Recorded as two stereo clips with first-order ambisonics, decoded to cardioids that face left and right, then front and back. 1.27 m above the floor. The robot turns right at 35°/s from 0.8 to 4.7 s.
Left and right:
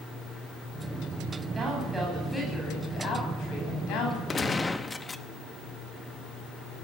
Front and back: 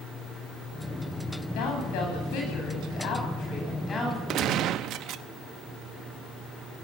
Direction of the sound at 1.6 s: 20° right.